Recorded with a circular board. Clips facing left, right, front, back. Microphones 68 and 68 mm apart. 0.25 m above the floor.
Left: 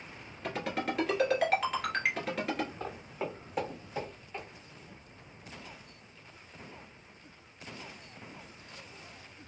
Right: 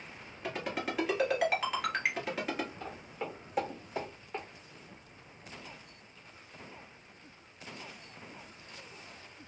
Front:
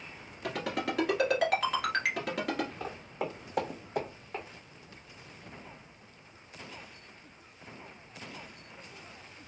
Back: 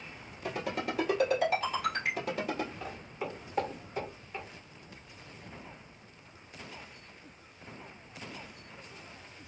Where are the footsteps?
35° left, 1.1 m; by 4.5 s 40° right, 1.3 m.